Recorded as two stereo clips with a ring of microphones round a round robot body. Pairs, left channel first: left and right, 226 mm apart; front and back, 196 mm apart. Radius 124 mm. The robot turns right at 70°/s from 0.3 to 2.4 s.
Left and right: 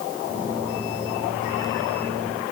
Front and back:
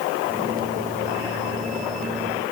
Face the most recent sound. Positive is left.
No sound to turn to.